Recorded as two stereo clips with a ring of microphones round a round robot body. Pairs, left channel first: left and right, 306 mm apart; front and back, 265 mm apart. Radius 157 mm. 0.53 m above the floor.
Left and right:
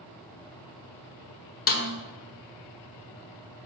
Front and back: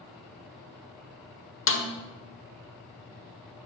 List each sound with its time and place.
1.7 s a snare drum: 35° left, 1.2 m